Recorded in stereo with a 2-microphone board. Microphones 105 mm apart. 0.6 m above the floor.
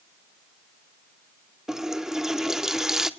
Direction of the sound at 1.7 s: 5° right (ahead or behind).